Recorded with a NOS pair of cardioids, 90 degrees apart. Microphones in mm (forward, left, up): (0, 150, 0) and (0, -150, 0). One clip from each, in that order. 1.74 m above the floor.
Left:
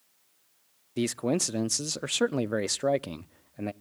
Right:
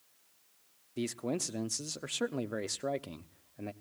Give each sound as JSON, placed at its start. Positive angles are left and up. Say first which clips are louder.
{"t": 1.0, "sound": "a man speaking", "louder": "left 7 dB", "azimuth_deg": 35, "distance_m": 0.6}